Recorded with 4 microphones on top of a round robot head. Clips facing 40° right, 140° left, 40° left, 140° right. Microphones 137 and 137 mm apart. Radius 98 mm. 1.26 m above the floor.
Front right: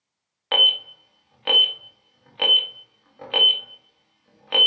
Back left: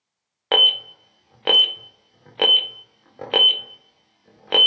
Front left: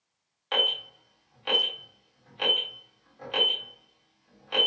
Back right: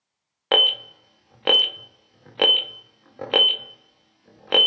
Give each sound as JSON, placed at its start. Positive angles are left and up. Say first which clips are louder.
{"t": 0.5, "sound": "an alarm", "louder": "back left 5 dB, back right 8 dB", "azimuth_deg": -170, "distance_m": 0.6}